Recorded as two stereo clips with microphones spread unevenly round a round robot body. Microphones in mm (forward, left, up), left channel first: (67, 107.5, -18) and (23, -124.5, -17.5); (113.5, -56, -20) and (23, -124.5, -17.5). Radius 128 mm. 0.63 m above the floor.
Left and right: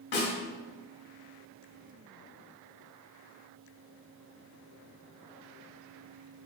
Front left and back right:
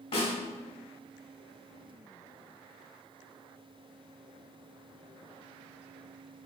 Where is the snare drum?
70° left, 1.6 m.